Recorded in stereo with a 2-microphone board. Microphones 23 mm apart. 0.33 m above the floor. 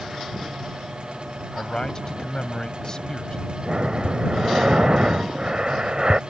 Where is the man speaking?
35° left (ahead or behind).